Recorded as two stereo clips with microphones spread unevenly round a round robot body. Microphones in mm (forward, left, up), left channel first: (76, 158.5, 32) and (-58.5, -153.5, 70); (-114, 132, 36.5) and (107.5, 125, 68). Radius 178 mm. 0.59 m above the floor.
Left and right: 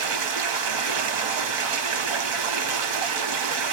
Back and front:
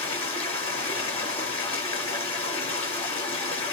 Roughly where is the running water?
Right.